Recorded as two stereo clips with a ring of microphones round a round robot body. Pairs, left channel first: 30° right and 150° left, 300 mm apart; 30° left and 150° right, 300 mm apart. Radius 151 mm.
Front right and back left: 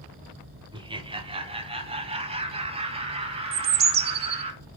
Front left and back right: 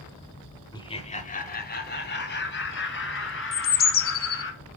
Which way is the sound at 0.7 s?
90° left.